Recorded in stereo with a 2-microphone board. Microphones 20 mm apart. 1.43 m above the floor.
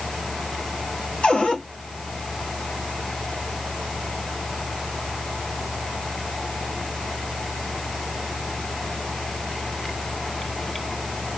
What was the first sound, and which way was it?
A cupboard door, 80° left.